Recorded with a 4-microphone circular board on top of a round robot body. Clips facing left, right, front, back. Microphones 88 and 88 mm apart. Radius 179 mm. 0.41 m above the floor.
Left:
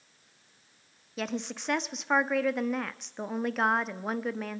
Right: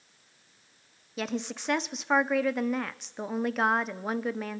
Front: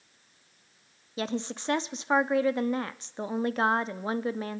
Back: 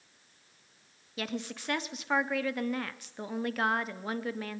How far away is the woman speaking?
About 0.8 m.